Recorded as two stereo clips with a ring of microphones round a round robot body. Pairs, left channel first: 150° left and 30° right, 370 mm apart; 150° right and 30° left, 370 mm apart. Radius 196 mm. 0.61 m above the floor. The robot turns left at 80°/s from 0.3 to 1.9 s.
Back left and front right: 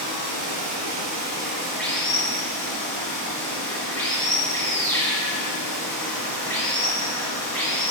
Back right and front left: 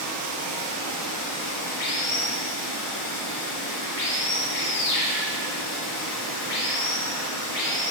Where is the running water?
Straight ahead, 2 m; by 7.9 s 130° right, 2 m.